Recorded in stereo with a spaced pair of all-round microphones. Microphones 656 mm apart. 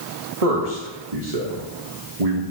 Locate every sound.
0.4 s a man speaking: 60° right (ahead or behind), 1.7 m